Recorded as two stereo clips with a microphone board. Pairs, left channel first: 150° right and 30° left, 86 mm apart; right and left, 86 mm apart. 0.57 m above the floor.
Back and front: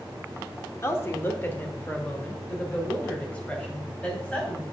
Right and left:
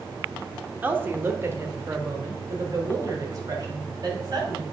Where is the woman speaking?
155° left, 1.1 m; by 4.6 s 135° left, 3 m.